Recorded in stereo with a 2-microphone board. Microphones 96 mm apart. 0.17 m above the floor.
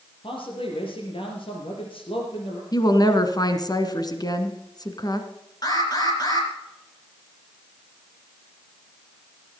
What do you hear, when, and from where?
0.2 s a man speaking: 70° left (ahead or behind), 4.5 m
2.7 s a woman speaking: 45° left (ahead or behind), 1.8 m
5.6 s an alarm: 45° left (ahead or behind), 3.5 m